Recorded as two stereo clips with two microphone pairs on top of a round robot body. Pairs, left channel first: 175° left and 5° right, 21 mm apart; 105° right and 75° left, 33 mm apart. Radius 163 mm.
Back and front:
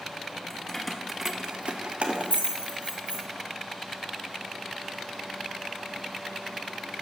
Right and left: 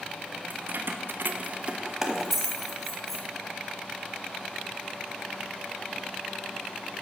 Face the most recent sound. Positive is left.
turn(degrees=-20)